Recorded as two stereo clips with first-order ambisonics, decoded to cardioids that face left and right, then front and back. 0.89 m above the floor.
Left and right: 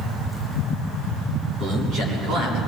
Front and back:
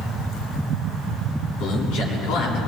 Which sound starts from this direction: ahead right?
A man speaking, at 1.6 s.